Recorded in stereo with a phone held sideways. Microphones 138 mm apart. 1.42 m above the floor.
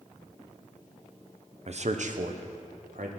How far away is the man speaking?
About 0.8 m.